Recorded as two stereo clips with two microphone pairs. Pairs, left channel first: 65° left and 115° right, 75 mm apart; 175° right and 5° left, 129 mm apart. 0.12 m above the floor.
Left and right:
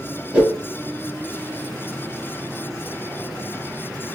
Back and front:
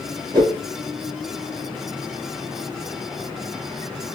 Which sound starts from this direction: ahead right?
A whoosh, at 0.3 s.